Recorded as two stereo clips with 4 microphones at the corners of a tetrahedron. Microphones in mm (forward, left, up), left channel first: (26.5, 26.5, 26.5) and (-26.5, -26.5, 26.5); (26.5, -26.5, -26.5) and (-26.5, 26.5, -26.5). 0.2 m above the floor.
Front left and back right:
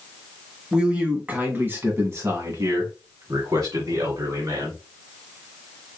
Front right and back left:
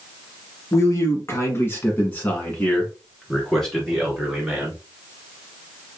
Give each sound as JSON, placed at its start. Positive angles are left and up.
{"t": 0.7, "sound": "a man speaking", "azimuth_deg": -60, "distance_m": 1.6}